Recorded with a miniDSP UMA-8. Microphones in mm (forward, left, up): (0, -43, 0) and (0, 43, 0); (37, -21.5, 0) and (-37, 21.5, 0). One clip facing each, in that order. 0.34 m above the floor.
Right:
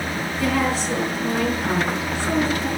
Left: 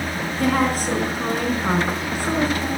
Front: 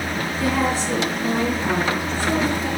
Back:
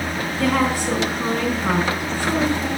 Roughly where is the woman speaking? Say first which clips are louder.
Left 2 dB, back 2 dB; behind left.